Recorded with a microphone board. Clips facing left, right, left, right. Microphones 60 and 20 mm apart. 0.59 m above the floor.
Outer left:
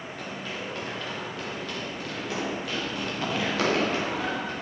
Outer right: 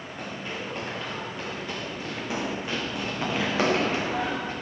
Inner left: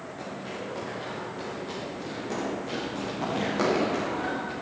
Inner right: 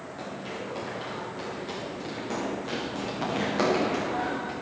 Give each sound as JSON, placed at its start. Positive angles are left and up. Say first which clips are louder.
{"t": 0.2, "sound": "running footsteps", "louder": "outer right 2 dB, inner right 1 dB", "side_deg": -20, "distance_m": 3.5}